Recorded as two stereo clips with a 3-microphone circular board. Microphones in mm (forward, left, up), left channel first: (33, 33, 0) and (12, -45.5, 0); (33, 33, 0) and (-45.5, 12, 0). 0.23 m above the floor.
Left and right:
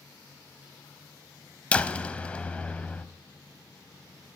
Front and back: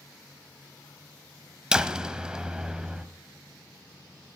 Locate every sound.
1.7 s a door slam: 130° left, 0.7 m